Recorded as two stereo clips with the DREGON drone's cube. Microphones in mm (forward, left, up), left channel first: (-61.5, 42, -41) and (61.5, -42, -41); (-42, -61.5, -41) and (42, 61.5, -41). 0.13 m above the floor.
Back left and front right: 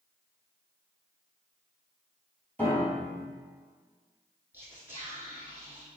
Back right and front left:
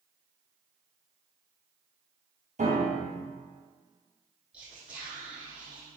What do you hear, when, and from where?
2.6 s a piano: 70° left, 1.4 m
4.5 s whispering: 5° right, 1.0 m